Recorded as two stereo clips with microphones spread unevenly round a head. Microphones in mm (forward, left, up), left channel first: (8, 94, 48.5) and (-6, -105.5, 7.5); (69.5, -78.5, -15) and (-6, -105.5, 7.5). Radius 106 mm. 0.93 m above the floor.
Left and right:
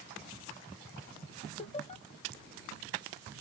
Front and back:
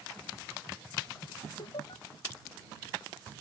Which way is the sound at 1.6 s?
25° left.